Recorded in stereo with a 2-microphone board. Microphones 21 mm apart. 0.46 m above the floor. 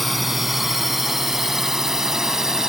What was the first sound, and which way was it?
A drone, centre (ahead or behind).